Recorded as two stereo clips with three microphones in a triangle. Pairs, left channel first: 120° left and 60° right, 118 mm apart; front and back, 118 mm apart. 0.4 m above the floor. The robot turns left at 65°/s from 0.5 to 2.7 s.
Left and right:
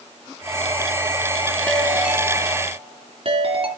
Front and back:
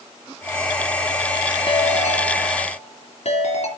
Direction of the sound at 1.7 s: 45° left.